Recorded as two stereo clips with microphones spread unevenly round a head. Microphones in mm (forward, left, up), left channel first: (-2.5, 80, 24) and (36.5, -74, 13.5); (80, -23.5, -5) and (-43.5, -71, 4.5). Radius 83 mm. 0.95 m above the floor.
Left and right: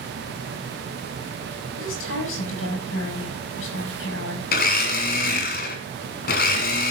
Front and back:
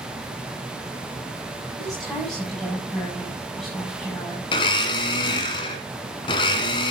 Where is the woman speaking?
110° left, 7.5 m.